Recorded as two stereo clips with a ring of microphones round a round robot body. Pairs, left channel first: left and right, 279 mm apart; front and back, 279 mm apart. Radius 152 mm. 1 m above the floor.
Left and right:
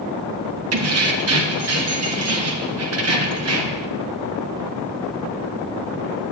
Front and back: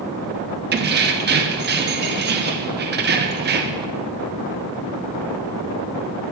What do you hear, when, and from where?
0.7 s keys jangling: 125° right, 1.0 m